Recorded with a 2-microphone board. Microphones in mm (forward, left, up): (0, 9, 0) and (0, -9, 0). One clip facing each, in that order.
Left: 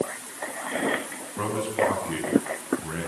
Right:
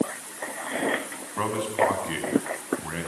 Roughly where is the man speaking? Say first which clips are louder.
Right 1 dB; right.